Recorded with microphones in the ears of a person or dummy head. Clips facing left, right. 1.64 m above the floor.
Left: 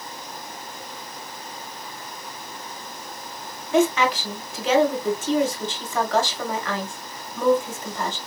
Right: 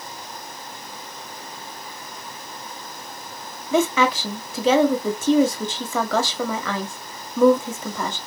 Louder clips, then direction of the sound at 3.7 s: Even; 70° right (ahead or behind).